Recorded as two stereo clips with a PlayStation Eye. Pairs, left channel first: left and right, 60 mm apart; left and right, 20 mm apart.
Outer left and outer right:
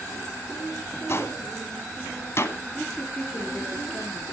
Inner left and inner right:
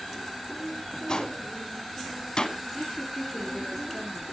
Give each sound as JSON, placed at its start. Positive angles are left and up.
{"t": 1.1, "sound": "a gunshot", "side_deg": 45, "distance_m": 1.3}
{"t": 2.7, "sound": "a woman speaking", "side_deg": 20, "distance_m": 5.0}